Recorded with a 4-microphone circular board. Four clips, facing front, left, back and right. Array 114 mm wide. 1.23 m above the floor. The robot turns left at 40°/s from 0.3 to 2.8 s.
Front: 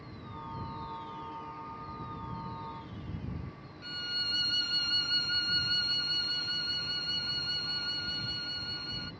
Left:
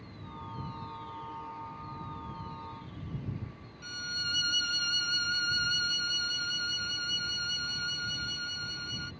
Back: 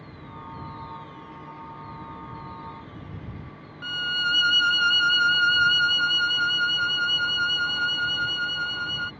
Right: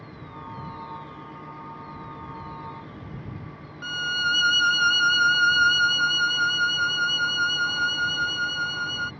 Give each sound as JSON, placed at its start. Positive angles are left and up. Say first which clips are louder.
{"t": 3.8, "sound": "a violin", "louder": "right 13 dB, back 15 dB", "azimuth_deg": -125}